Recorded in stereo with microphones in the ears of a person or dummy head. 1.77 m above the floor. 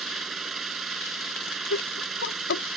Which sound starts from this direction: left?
Laughter, at 1.7 s.